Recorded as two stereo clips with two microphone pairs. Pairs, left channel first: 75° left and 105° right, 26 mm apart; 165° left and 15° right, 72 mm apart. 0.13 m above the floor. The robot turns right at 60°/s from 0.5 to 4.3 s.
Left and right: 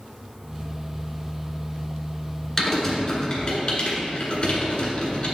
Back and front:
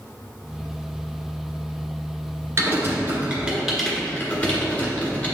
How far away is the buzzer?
I don't hear a buzzer.